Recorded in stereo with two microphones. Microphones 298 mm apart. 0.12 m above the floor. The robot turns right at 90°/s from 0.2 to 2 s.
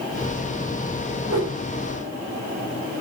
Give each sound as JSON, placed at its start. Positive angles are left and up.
{"t": 1.3, "sound": "a whoosh", "side_deg": -60, "distance_m": 4.0}